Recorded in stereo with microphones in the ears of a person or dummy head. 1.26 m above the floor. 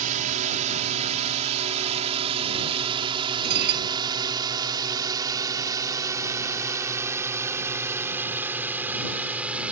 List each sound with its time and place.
0.0 s a drone: 40° right (ahead or behind); by 9.7 s 5° right (ahead or behind)
3.4 s dishes clattering: 55° right (ahead or behind)